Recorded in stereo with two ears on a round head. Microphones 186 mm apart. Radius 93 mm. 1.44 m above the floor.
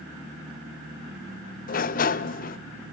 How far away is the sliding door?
About 0.5 m.